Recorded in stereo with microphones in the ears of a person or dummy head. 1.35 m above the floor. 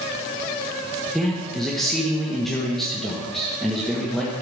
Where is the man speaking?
Centre (ahead or behind), 1.5 m.